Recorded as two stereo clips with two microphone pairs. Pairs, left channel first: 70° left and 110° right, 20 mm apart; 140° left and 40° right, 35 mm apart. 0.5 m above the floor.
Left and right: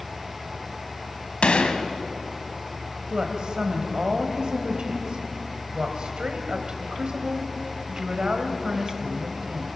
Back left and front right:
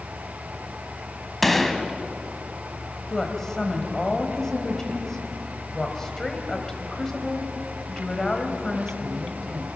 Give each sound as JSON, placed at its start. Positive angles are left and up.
{"t": 1.4, "sound": "a gunshot", "azimuth_deg": 60, "distance_m": 1.4}
{"t": 3.1, "sound": "a woman speaking", "azimuth_deg": -145, "distance_m": 3.0}